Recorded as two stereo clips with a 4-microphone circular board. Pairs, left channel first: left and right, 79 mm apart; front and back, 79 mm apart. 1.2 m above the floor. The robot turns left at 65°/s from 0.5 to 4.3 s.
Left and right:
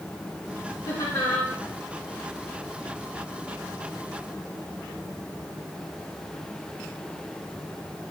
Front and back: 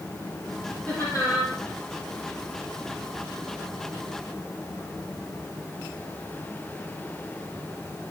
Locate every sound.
0.9 s laughter: 60° left, 3.5 m; by 1.5 s 20° left, 3.5 m